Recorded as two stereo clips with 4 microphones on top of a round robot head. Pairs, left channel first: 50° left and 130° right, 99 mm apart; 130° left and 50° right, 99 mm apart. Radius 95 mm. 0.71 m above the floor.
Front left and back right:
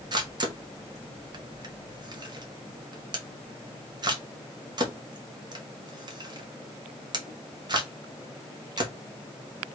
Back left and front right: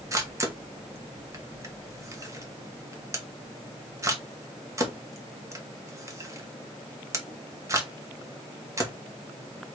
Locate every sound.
0.1 s a camera shutter: 100° right, 1.5 m